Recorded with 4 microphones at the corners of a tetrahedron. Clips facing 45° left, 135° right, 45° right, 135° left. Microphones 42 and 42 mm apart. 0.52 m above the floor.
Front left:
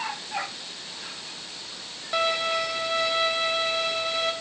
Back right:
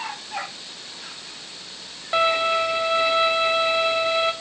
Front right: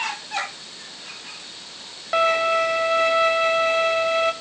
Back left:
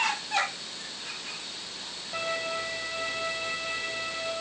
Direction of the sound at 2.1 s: 65° right.